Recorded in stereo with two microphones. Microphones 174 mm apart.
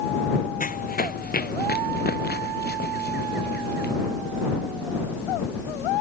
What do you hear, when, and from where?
0.6 s running footsteps: 55° left (ahead or behind); by 3.9 s 85° left